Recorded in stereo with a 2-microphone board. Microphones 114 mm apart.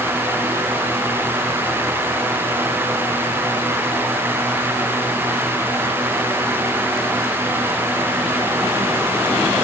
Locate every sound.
Only background noise.